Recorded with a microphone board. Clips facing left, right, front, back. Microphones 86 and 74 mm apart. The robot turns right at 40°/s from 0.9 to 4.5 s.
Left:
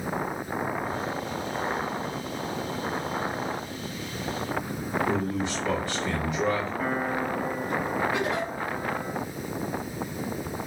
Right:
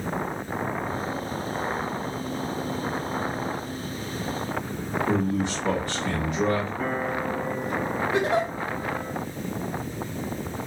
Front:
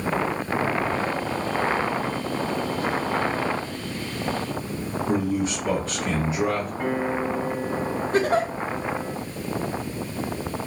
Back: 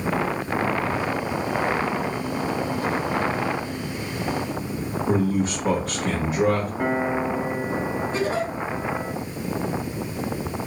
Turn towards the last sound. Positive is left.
turn(degrees=-35)